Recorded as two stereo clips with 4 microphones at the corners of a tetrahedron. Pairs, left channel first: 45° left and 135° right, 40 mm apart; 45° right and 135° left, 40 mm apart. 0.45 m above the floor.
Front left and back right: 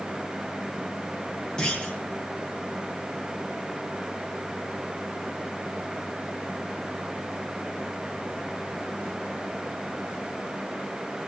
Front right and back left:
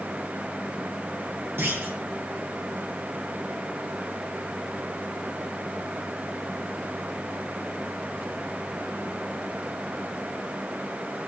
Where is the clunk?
115° left, 5.5 m.